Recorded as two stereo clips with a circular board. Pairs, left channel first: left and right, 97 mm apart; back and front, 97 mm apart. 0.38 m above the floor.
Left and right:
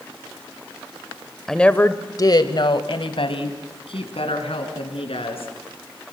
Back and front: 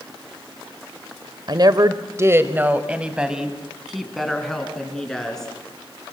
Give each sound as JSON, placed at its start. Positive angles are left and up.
{"t": 1.5, "sound": "a woman speaking", "azimuth_deg": 5, "distance_m": 1.3}